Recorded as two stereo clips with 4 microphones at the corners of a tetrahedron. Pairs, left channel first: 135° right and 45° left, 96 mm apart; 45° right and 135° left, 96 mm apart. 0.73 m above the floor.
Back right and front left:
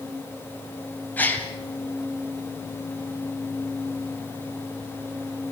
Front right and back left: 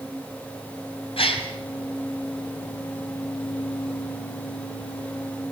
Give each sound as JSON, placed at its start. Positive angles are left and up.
{"t": 1.2, "sound": "a gasp", "azimuth_deg": -60, "distance_m": 2.5}